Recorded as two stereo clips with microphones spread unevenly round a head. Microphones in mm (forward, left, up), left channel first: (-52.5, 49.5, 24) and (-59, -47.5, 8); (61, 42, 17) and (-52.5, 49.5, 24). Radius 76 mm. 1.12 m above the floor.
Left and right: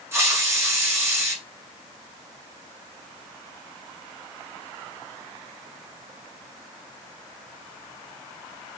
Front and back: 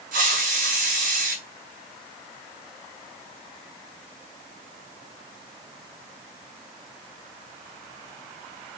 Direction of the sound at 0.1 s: 160° right.